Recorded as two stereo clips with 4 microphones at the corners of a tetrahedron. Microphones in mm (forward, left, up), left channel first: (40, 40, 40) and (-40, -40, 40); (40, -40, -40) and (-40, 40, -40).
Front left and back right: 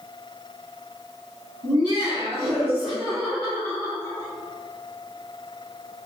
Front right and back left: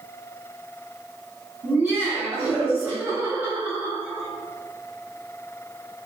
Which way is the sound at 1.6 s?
155° right.